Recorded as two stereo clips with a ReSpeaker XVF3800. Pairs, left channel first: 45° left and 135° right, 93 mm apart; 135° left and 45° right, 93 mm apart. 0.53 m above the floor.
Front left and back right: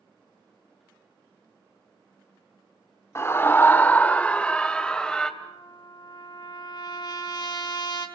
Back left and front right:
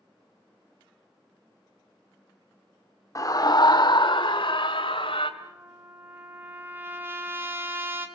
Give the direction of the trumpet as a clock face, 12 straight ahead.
11 o'clock.